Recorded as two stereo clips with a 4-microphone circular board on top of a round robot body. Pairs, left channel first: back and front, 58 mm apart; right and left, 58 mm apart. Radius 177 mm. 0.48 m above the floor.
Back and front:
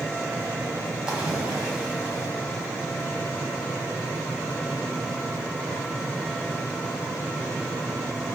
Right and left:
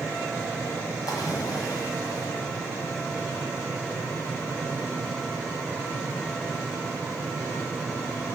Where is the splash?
75° right, 1.7 m.